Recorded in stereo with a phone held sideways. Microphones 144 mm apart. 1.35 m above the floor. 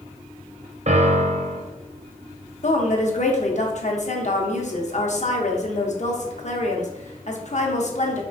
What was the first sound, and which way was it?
A piano, 50° right (ahead or behind).